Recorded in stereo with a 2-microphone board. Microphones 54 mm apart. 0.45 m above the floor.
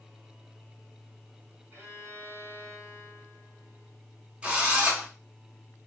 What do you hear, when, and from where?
1.7 s a violin: 50° right (ahead or behind), 1.8 m
4.4 s a drill: 25° right (ahead or behind), 0.9 m